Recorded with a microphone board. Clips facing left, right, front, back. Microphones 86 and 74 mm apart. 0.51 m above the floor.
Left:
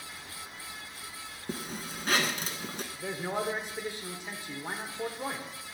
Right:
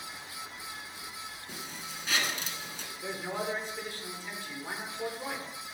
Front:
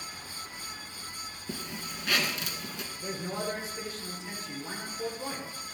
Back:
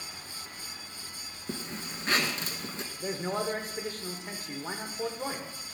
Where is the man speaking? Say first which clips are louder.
Left 2 dB, back 4 dB; 155° left, 1.1 m.